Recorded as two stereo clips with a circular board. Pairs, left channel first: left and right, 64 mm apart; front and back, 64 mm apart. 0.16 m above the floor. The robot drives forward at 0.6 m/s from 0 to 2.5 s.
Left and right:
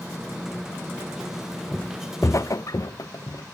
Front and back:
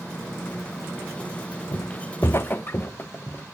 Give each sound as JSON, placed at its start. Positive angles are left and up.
{"t": 1.7, "sound": "footsteps", "azimuth_deg": 15, "distance_m": 0.6}